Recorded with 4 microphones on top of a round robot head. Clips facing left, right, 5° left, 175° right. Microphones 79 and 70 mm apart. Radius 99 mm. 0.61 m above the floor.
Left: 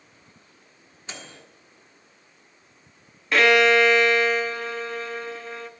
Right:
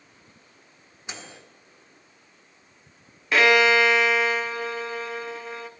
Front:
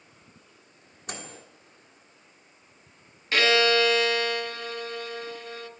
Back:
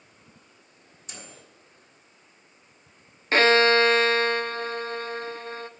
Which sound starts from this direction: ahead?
A microwave, at 1.1 s.